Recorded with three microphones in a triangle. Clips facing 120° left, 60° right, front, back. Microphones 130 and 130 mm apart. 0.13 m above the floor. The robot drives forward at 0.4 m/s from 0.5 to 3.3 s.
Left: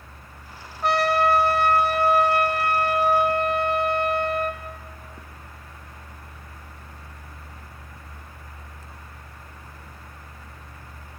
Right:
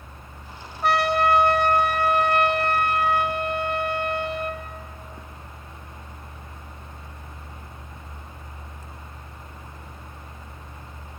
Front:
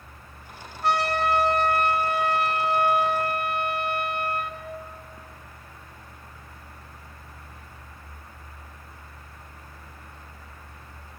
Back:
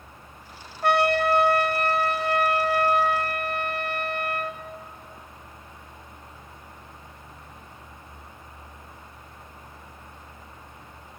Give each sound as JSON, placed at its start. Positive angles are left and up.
{"t": 0.8, "sound": "a trumpet", "azimuth_deg": -150, "distance_m": 1.0}